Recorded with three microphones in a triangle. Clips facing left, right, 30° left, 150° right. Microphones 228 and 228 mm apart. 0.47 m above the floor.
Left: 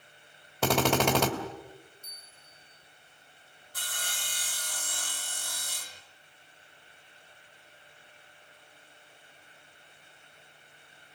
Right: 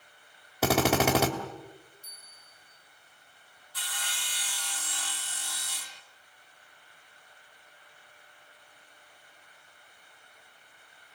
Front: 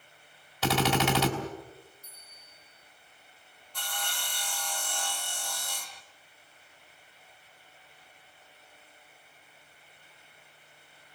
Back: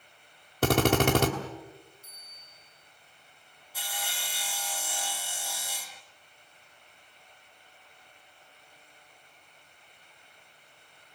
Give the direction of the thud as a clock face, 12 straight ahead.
No thud in this recording.